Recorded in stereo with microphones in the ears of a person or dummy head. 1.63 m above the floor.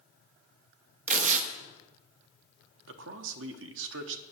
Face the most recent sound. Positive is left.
turn(degrees=-65)  # may be behind; listen again after turning